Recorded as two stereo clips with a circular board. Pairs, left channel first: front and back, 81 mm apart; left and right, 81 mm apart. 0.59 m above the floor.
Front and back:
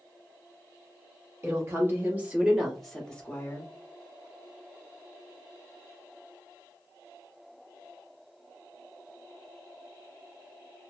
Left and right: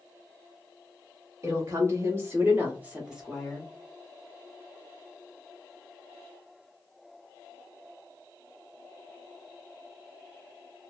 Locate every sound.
1.4 s a woman speaking: 130° right, 1.5 m; by 3.7 s 15° left, 1.0 m